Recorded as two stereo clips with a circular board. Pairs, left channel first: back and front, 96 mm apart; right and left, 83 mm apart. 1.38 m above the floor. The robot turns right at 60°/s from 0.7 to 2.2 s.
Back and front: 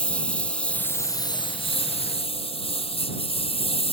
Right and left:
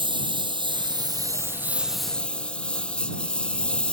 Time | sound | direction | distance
0.0 | a lawn mower | 100° left | ?